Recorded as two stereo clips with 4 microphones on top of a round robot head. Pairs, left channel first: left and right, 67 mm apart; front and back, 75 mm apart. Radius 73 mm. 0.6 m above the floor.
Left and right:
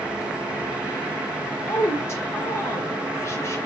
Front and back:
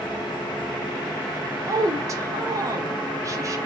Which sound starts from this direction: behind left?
A woman speaking, at 1.7 s.